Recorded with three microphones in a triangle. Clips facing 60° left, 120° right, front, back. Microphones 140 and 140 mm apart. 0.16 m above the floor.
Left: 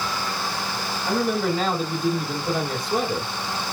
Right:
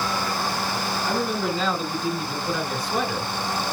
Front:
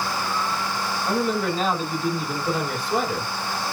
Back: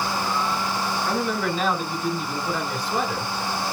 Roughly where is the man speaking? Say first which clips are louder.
Left 4 dB, front 4 dB; left.